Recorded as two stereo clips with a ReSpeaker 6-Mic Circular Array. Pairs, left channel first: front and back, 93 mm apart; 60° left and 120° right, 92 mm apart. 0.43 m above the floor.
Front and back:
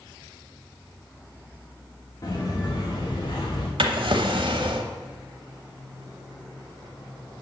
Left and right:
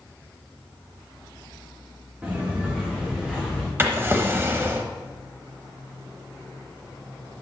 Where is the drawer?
175° left, 0.9 m.